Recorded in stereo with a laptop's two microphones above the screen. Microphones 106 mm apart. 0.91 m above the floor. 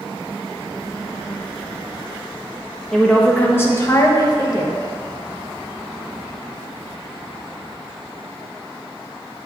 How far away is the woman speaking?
About 0.8 m.